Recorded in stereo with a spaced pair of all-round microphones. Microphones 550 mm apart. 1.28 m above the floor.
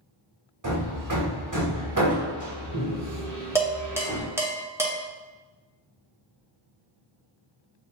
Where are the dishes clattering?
5° right (ahead or behind), 0.7 m.